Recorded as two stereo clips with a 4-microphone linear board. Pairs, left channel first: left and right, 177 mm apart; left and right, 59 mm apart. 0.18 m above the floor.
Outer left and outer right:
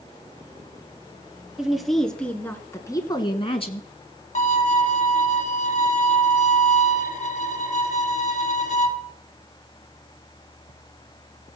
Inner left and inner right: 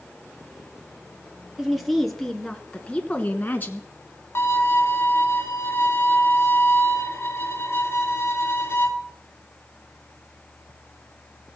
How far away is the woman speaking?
About 3 m.